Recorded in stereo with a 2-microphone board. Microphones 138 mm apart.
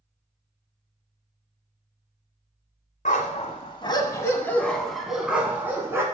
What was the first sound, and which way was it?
A dog barking, 60° left (ahead or behind).